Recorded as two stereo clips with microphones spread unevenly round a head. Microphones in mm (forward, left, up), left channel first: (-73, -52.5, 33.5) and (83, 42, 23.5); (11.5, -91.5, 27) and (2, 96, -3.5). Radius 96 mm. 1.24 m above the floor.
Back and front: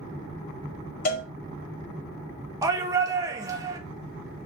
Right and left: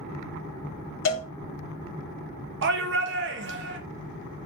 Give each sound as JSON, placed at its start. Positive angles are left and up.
{"t": 1.1, "sound": "a cowbell", "azimuth_deg": -105, "distance_m": 0.9}
{"t": 2.6, "sound": "a shout", "azimuth_deg": 100, "distance_m": 0.8}